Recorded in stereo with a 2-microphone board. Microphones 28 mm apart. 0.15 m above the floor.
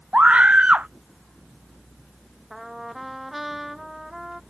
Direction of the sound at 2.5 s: 5° right (ahead or behind).